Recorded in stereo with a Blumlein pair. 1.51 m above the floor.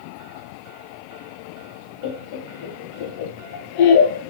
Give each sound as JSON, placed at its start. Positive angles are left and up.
{"t": 2.0, "sound": "laughter", "azimuth_deg": 50, "distance_m": 0.8}